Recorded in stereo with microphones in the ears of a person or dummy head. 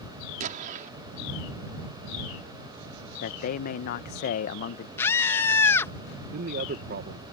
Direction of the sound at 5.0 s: 20° left (ahead or behind).